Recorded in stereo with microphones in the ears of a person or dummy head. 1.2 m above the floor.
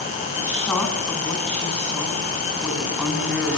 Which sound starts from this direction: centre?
A woman speaking, at 0.4 s.